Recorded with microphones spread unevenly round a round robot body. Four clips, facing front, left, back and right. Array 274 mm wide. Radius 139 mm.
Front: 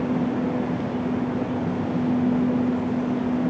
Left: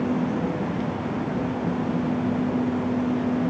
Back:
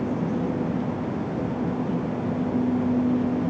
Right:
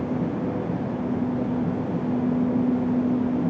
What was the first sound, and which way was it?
Only background noise.